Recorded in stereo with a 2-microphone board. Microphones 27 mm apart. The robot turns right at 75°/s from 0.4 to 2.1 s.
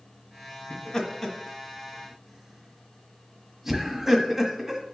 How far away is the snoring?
I don't hear snoring.